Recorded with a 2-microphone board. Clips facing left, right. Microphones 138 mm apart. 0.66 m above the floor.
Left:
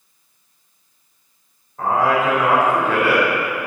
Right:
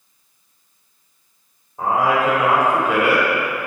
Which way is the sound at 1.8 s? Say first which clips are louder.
Even; 15° right (ahead or behind).